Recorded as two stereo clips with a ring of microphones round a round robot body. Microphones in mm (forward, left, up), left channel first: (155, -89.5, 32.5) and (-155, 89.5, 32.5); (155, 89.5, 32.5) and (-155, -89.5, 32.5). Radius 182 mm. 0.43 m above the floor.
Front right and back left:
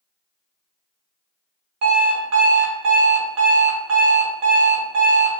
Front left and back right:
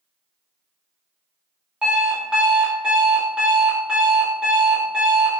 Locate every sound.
1.8 s an alarm clock: 125° left, 0.7 m